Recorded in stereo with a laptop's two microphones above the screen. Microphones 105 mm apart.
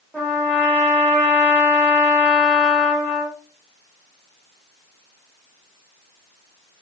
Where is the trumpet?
10° left (ahead or behind), 1.4 m.